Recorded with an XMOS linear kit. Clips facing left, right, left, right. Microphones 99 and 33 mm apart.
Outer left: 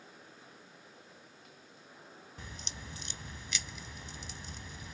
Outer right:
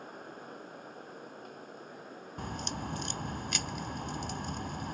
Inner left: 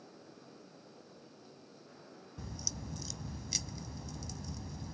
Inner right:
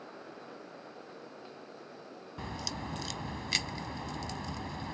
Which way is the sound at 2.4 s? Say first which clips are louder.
Outer right 12 dB, inner right 6 dB; 65° right (ahead or behind).